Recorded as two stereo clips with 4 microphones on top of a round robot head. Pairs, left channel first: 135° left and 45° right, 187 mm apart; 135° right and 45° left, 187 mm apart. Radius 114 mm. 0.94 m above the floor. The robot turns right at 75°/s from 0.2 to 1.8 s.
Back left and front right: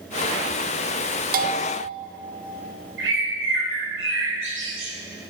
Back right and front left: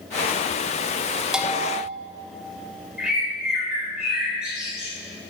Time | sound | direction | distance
1.3 | a bell | 40° right | 0.7 m
3.0 | a bird | 40° right | 3.5 m